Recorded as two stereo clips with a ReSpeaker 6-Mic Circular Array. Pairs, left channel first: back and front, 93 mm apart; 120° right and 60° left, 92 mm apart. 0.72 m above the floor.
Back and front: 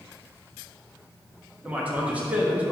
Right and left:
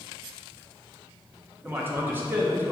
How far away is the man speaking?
About 1.1 m.